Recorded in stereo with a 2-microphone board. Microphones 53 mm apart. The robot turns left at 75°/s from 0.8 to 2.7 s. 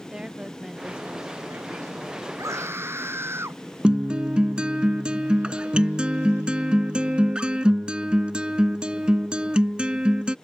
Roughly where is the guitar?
Centre.